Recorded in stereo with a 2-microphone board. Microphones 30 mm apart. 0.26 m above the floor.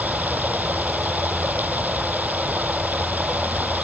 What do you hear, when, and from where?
0.0 s running water: 75° right (ahead or behind)